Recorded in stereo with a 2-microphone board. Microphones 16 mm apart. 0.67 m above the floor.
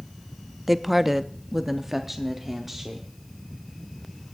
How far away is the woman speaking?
About 0.5 m.